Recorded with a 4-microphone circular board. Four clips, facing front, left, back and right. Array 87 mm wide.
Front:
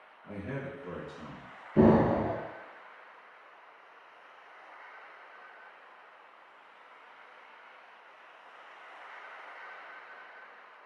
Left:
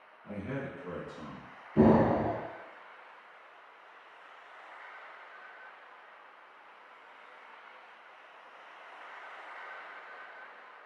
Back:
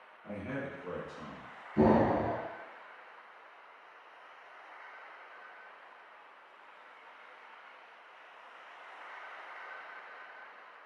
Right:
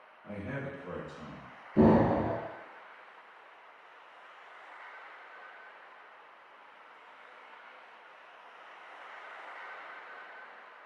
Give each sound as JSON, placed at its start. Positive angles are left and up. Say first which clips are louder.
{"t": 0.2, "sound": "a man speaking", "louder": "left 1 dB, even", "azimuth_deg": -170, "distance_m": 1.1}
{"t": 1.8, "sound": "an explosion", "louder": "even, front 3 dB", "azimuth_deg": 10, "distance_m": 0.6}